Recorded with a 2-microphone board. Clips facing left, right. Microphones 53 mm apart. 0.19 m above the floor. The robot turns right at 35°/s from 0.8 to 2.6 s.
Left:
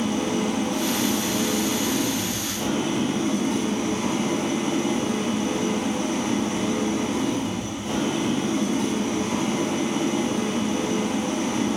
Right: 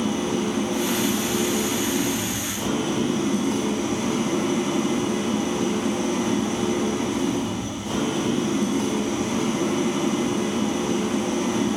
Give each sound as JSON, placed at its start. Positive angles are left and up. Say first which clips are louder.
{"t": 0.0, "sound": "an engine running", "louder": "even", "azimuth_deg": 75, "distance_m": 3.0}